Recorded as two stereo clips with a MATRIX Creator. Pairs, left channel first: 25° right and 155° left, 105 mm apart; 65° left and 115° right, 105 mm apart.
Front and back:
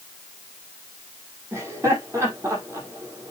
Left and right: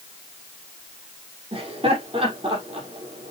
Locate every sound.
1.5 s laughter: 140° right, 5.5 m